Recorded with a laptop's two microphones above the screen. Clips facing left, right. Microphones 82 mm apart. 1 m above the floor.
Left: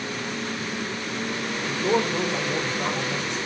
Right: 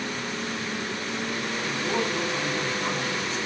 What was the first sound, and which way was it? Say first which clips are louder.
A man speaking: left 6 dB; 60° left (ahead or behind).